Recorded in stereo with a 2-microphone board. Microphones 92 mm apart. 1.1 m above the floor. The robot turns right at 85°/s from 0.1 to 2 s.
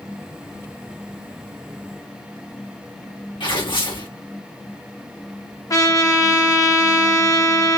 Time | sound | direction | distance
3.4 | tearing paper | 70° left (ahead or behind) | 2 m
5.7 | a trumpet | 40° left (ahead or behind) | 1.2 m